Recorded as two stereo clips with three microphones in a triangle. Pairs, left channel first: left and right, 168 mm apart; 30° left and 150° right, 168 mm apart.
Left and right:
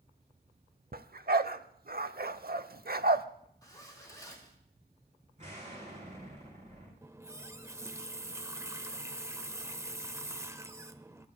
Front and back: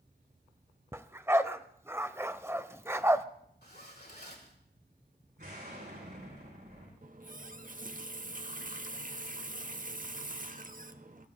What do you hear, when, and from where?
0.9 s a dog barking: 75° right, 0.6 m
3.6 s a zipper: 20° left, 3.5 m
5.4 s an explosion: 135° right, 6 m
7.0 s a running tap: 160° right, 0.7 m